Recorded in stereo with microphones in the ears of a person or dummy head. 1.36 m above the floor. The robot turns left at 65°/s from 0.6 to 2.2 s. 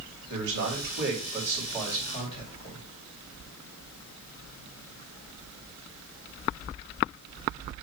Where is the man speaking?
105° right, 3 m; by 2.8 s 150° left, 3 m.